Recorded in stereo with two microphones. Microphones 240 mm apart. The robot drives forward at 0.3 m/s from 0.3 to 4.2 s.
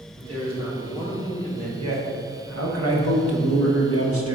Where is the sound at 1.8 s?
80° right, 1.3 m; by 4.3 s 70° right (ahead or behind), 1.4 m.